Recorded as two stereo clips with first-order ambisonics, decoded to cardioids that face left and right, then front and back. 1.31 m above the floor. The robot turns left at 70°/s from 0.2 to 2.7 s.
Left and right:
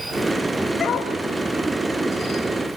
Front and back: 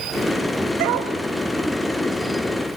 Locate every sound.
0.8 s a dog barking: 160° left, 2.5 m; by 1.1 s 135° left, 2.5 m